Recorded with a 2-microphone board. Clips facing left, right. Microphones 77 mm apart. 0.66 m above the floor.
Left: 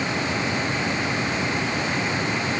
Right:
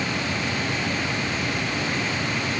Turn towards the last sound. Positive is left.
No sound to turn to.